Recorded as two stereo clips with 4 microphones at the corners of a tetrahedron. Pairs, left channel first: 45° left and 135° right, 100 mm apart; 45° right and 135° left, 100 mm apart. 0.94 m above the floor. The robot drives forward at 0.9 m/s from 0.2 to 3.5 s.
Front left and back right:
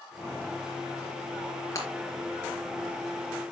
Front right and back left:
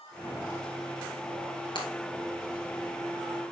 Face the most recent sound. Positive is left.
turn(degrees=-25)